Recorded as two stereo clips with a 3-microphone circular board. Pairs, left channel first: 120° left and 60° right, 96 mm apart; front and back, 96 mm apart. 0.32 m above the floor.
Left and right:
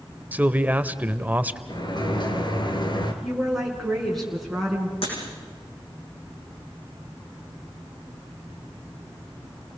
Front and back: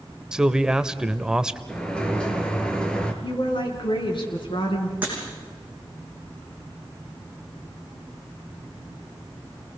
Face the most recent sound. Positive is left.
turn(degrees=105)